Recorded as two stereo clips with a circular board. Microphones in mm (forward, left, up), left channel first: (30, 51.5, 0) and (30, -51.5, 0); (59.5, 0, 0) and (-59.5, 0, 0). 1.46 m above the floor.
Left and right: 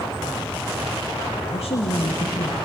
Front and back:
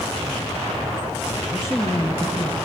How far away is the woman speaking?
About 1.9 m.